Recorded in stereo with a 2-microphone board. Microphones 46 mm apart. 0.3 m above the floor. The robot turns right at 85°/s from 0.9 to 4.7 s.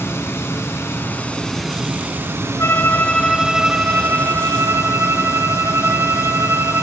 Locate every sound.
0.0 s running water: 115° left, 0.9 m; by 6.8 s 80° left, 0.9 m
2.6 s a violin: 110° left, 0.8 m; by 6.8 s 70° right, 0.8 m